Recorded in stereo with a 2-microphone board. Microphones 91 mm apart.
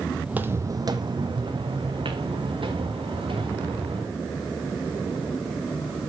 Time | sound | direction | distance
0.2 | footsteps | 10° right (ahead or behind) | 0.5 m